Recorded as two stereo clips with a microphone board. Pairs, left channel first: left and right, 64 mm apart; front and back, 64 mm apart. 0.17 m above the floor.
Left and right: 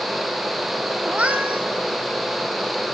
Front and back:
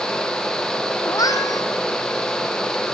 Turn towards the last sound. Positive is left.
turn(degrees=-20)